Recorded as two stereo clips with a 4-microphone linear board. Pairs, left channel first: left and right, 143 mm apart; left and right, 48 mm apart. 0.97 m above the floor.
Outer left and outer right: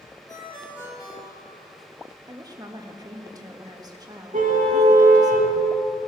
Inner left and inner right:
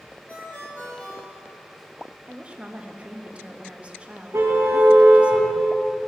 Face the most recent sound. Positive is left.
turn(degrees=-65)  # may be behind; listen again after turning